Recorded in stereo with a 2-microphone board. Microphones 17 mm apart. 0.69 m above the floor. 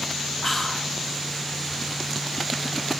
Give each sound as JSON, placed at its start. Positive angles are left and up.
{"t": 0.4, "sound": "whispering", "side_deg": 15, "distance_m": 0.5}